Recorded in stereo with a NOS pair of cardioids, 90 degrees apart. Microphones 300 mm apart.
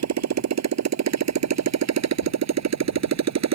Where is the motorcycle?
60° right.